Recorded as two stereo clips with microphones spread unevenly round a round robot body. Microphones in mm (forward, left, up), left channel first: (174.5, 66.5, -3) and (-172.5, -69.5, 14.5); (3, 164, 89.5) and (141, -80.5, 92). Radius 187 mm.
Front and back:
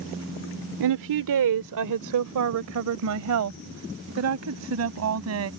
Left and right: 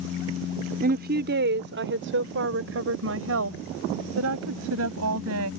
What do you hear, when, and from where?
0.8 s a woman speaking: 120° right; by 5.5 s 105° right